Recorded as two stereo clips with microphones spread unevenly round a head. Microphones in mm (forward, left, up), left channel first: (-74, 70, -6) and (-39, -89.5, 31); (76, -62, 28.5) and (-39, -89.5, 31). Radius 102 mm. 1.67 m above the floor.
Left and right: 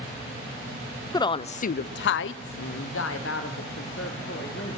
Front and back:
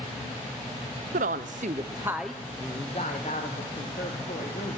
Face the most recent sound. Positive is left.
turn(degrees=60)